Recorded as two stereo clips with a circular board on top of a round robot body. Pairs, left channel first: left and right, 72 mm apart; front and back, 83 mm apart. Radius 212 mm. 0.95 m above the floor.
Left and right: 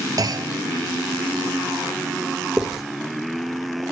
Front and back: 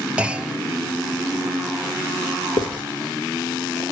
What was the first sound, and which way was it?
A clunk, 105° right.